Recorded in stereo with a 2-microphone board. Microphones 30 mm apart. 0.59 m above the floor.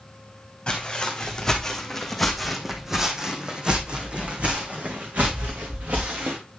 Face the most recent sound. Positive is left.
turn(degrees=-65)  # may be behind; listen again after turning